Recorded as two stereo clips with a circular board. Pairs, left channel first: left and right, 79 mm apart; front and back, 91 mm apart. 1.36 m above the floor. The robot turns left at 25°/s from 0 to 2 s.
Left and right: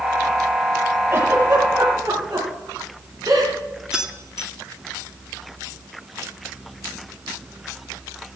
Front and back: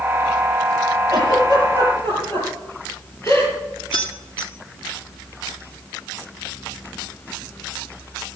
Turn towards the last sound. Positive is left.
turn(degrees=-10)